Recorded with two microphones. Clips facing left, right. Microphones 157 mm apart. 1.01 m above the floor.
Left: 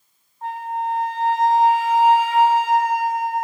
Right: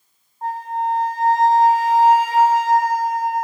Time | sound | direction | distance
0.4 | a flute | 35° right (ahead or behind) | 0.5 m